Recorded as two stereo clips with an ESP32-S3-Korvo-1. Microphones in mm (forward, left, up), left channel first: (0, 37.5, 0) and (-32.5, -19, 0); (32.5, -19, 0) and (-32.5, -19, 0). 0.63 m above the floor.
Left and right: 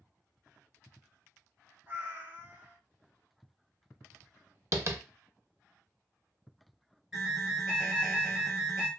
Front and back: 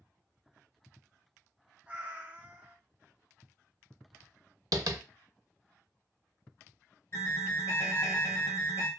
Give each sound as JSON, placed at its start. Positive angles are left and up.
{"t": 1.9, "sound": "a cat meowing", "azimuth_deg": -135, "distance_m": 0.6}
{"t": 4.7, "sound": "tapping", "azimuth_deg": -165, "distance_m": 0.5}
{"t": 7.1, "sound": "an alarm", "azimuth_deg": -40, "distance_m": 1.4}